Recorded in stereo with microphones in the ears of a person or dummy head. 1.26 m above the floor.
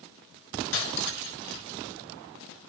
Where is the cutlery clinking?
80° left, 3.5 m.